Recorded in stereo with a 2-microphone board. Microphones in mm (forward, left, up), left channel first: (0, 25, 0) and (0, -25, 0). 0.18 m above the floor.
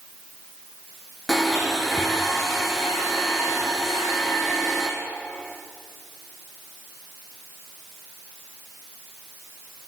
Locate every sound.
1.3 s a blender: 5° left (ahead or behind), 2 m